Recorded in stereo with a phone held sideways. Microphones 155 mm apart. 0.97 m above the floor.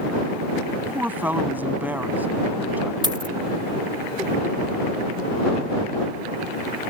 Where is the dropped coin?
30° right (ahead or behind).